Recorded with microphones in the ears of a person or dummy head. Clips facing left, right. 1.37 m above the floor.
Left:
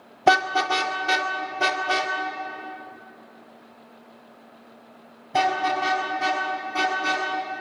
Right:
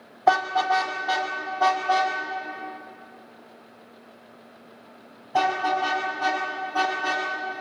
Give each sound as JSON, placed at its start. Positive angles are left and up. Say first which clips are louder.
{"t": 0.3, "sound": "a car horn", "louder": "left 1 dB", "side_deg": 45, "distance_m": 2.0}